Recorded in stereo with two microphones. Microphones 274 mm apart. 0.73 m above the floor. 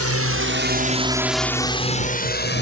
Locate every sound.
0.0 s a drone: 60° right (ahead or behind); by 2.6 s 40° left (ahead or behind)